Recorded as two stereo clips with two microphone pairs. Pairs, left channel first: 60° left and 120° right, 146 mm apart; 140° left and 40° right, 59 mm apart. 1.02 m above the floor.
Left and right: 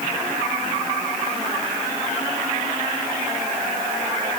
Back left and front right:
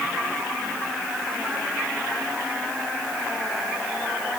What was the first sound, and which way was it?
Only background noise.